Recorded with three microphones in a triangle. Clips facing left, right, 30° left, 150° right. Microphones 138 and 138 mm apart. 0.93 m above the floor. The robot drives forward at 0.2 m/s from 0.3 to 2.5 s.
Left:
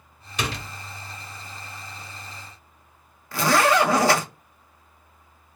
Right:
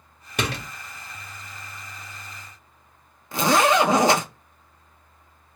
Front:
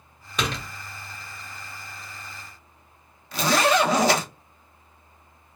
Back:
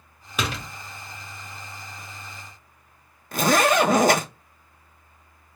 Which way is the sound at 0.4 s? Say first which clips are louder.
Right 2 dB, even; 65° right.